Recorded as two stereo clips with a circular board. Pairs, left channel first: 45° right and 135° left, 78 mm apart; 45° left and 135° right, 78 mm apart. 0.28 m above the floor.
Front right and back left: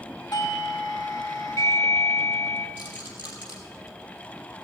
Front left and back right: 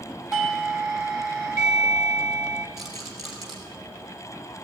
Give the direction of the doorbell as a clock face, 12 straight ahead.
2 o'clock.